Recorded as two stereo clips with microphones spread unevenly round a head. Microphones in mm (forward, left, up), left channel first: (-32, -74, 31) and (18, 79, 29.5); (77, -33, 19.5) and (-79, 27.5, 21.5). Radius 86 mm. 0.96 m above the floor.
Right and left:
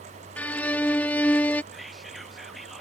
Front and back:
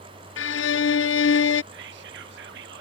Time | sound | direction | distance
0.4 | a violin | 25° right | ?
1.7 | whispering | 160° left | ?